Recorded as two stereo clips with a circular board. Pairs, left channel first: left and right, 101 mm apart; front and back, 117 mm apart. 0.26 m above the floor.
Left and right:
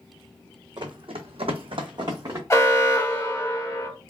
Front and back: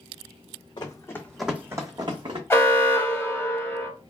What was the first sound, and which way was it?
Running footsteps, 50° right.